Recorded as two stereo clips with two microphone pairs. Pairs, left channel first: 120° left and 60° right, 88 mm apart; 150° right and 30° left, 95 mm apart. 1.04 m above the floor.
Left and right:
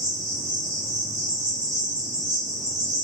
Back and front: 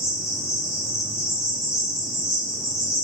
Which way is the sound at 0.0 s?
100° right.